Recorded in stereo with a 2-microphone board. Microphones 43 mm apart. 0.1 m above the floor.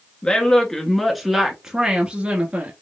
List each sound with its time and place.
0.2 s a woman speaking: 20° left (ahead or behind), 1.2 m; by 2.7 s 35° right (ahead or behind), 1.4 m